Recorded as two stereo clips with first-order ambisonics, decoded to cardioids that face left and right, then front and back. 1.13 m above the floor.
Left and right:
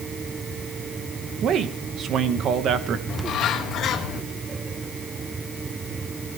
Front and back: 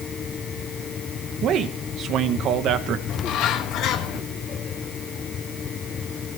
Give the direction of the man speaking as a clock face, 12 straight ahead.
5 o'clock.